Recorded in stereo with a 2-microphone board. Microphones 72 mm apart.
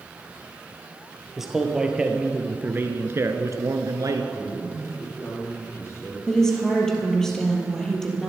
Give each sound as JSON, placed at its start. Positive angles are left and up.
{"t": 1.4, "sound": "a man speaking", "side_deg": -5, "distance_m": 2.5}
{"t": 4.3, "sound": "a man speaking", "side_deg": 40, "distance_m": 4.5}
{"t": 6.3, "sound": "a woman speaking", "side_deg": 10, "distance_m": 3.5}